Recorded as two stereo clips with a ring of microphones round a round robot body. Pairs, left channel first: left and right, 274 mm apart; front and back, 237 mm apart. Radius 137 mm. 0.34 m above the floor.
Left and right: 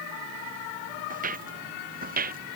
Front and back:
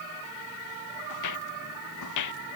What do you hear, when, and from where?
1.1 s footsteps: 30° right